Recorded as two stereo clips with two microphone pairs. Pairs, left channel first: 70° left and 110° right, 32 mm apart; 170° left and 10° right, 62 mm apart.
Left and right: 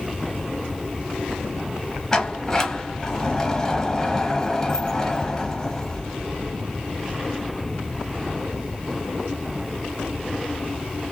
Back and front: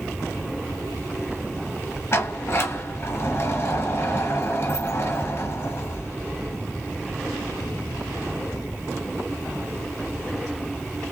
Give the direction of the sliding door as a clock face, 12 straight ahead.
7 o'clock.